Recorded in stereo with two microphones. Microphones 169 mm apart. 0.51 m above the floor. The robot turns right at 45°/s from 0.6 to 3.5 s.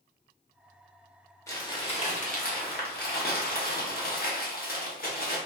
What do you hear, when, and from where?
1.5 s crumpling: 20° left, 0.8 m; by 5.4 s 110° left, 0.8 m